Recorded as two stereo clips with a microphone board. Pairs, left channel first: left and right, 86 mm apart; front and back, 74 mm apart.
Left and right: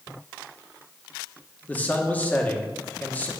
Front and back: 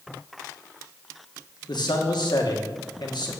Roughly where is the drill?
No drill in this recording.